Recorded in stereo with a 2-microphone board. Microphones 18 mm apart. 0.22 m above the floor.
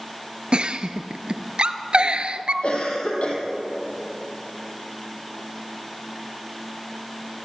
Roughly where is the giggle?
Right.